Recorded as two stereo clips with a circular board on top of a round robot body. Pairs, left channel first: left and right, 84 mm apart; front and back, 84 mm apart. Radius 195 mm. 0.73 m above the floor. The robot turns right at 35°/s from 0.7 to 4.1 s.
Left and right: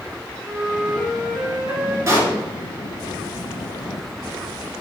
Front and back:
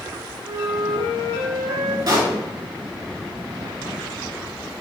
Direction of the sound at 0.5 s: 165° left.